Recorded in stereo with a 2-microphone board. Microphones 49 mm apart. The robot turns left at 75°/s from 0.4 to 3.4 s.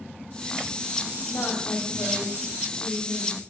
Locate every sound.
1.3 s a woman speaking: 150° left, 4 m; by 3.4 s 10° right, 4 m